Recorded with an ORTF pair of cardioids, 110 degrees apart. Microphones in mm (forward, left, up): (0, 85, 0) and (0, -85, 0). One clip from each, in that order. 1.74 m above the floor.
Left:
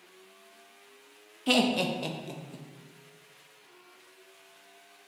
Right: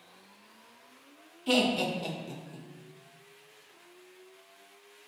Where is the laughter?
20° left, 0.5 m.